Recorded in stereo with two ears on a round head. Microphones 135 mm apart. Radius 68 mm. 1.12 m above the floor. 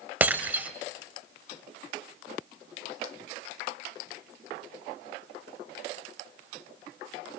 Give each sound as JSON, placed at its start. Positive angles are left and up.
{"t": 0.2, "sound": "breaking glass", "side_deg": -10, "distance_m": 2.5}